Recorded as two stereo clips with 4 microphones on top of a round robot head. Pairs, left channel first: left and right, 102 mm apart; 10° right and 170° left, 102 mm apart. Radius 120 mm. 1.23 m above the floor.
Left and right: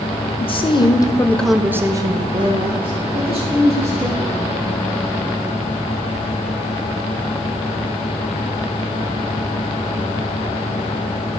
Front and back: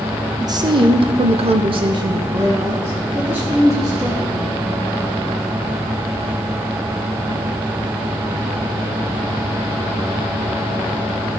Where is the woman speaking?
120° left, 1.3 m; by 4.5 s 105° right, 3 m.